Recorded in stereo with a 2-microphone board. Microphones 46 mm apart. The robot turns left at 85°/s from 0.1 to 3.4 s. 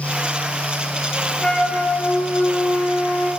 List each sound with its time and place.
1.4 s a flute: 165° left, 0.8 m; by 3.3 s straight ahead, 0.8 m